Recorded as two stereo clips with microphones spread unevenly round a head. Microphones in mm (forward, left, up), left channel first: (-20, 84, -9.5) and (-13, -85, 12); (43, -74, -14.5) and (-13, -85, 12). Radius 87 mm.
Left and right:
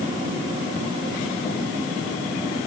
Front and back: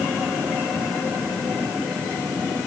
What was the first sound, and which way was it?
Only background noise.